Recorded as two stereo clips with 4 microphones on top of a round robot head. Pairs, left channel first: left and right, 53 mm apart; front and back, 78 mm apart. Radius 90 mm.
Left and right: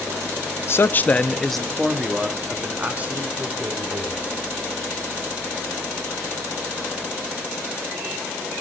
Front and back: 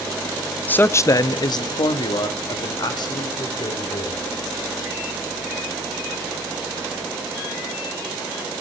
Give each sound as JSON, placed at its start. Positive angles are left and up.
{"t": 0.7, "sound": "a man speaking", "azimuth_deg": 65, "distance_m": 1.0}